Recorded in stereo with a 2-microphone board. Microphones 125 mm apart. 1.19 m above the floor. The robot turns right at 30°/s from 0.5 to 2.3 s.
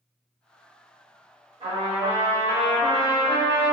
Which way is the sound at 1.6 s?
50° right (ahead or behind).